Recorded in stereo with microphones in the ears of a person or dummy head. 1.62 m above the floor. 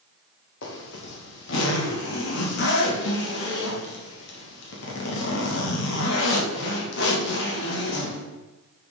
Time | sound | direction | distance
0.6 | a zipper | 70° left (ahead or behind) | 2 m